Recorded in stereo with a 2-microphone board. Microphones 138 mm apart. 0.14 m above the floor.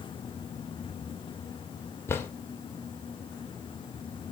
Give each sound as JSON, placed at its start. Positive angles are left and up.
{"t": 2.1, "sound": "a drawer", "side_deg": 15, "distance_m": 1.9}